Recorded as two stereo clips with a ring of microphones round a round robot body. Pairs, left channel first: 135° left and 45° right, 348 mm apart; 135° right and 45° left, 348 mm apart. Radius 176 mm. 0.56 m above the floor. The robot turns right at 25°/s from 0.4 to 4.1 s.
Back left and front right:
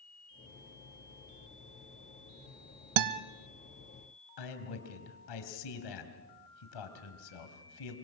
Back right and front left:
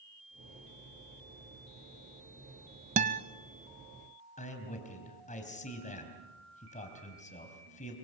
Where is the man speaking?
155° left, 3.5 m.